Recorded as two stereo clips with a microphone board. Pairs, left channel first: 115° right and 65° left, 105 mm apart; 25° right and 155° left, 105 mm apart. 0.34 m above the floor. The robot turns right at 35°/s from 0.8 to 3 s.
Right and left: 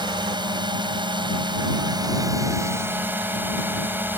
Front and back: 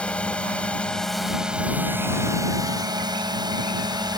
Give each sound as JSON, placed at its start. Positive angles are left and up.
{"t": 0.0, "sound": "a drone", "azimuth_deg": 55}